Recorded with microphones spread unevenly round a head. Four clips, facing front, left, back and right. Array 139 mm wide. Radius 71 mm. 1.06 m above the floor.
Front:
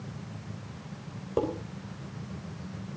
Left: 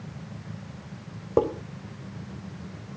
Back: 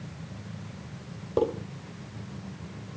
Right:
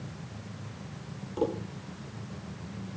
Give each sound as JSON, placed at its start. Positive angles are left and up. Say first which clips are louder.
{"t": 1.4, "sound": "dishes clattering", "louder": "left 7 dB, back 3 dB", "azimuth_deg": 100, "distance_m": 3.0}